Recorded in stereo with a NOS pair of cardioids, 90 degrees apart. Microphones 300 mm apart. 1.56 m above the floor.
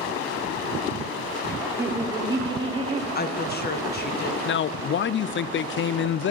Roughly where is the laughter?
Ahead.